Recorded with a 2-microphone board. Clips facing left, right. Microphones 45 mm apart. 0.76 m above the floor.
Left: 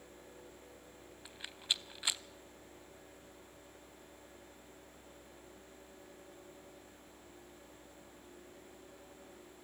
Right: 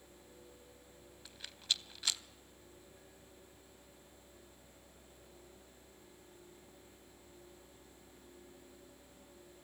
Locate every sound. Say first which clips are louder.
1.2 s a rattle: left 1 dB; 20° left (ahead or behind), 0.6 m